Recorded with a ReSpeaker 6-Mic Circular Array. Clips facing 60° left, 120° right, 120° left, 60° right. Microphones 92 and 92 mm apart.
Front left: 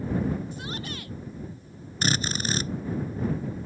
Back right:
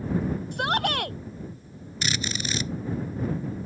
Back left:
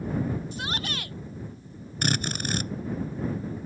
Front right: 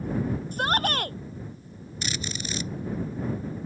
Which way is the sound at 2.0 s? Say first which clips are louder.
Front left 3 dB, back left 6 dB; 100° left.